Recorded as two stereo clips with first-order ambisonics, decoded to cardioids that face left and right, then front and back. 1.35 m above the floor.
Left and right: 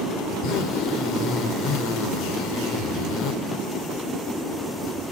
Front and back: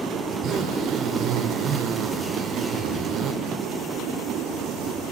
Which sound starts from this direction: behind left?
A zipper, at 0.3 s.